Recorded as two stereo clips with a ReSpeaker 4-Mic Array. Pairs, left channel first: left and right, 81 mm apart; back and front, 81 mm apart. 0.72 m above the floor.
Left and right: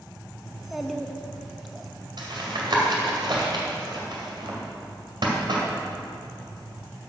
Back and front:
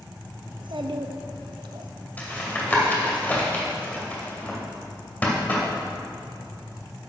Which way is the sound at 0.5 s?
Straight ahead.